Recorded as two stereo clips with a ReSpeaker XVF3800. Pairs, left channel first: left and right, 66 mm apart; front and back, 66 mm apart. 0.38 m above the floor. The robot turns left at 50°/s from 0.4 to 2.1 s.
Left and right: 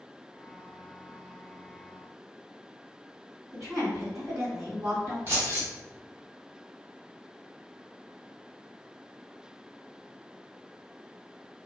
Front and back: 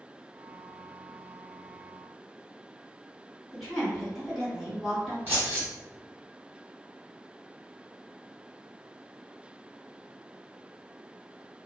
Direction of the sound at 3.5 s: 85° right.